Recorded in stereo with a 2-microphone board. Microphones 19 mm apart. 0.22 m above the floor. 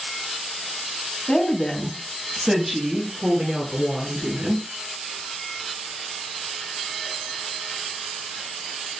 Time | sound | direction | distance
1.3 | a woman speaking | 40° left (ahead or behind) | 1.3 m